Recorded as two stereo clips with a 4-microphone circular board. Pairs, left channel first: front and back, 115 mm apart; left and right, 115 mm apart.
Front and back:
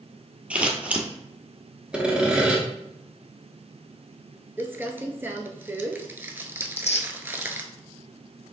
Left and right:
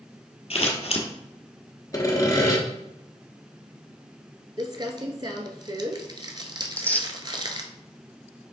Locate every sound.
0.5 s scissors: 105° left, 1.0 m
1.9 s sawing: 105° left, 1.2 m
4.6 s crumpling: 115° right, 0.6 m
6.6 s tearing paper: 15° left, 0.7 m